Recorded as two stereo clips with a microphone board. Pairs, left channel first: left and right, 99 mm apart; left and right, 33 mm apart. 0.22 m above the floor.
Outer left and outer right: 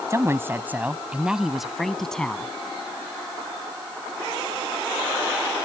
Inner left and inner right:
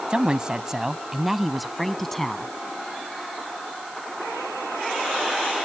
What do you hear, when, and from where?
0.1 s a woman speaking: 30° right (ahead or behind); by 2.5 s 10° left (ahead or behind)